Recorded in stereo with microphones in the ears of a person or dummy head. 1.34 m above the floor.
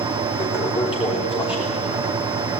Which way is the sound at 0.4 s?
25° left (ahead or behind).